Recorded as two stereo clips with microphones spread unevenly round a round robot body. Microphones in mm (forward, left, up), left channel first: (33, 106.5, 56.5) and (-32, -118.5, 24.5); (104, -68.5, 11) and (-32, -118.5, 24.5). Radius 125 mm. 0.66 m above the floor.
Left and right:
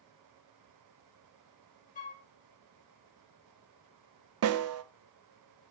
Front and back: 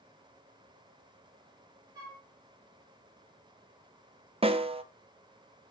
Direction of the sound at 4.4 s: 105° right.